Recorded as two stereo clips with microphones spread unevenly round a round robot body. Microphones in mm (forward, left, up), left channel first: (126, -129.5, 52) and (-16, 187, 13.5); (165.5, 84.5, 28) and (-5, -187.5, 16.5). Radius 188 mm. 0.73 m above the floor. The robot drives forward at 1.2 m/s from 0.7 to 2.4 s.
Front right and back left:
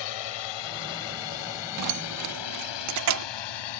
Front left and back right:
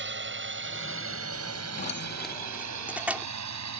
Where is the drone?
70° right; by 3.8 s 90° right.